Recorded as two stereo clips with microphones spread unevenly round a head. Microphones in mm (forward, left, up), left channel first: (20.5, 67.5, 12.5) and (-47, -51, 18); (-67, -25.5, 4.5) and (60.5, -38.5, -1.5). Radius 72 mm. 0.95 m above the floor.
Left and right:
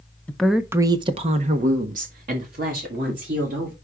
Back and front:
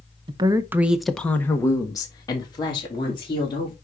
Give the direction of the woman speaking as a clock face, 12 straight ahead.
12 o'clock.